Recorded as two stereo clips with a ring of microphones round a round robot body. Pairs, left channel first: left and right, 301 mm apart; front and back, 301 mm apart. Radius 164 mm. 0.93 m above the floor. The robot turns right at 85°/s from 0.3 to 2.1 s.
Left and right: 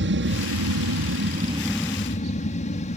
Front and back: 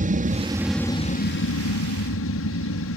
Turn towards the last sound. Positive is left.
turn(degrees=30)